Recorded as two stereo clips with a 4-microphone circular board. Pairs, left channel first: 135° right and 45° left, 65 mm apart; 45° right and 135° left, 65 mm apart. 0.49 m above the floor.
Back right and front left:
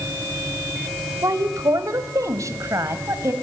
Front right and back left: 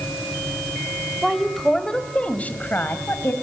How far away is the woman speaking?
About 1.8 m.